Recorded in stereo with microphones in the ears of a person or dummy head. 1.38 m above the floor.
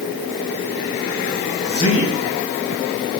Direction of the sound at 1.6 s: 25° left (ahead or behind).